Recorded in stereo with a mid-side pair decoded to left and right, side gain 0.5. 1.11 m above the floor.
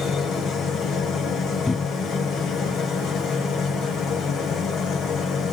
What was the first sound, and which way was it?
A machine running, 65° left.